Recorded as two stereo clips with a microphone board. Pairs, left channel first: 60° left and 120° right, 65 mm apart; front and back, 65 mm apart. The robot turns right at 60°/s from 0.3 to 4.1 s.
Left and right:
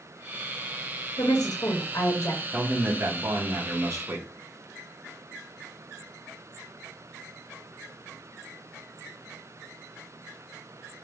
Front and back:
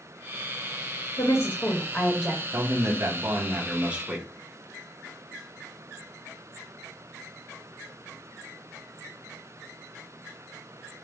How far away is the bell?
I don't hear a bell.